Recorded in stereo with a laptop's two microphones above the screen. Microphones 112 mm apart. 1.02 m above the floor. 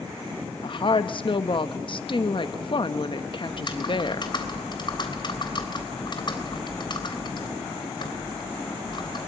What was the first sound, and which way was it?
A woman speaking, 45° left (ahead or behind).